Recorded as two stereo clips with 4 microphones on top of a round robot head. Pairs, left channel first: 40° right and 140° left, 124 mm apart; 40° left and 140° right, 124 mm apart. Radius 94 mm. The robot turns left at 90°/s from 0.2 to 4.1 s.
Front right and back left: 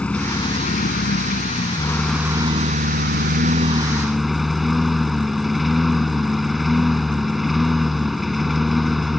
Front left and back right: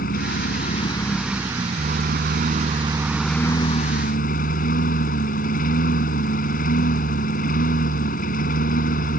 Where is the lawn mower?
45° left; by 9.2 s 50° left.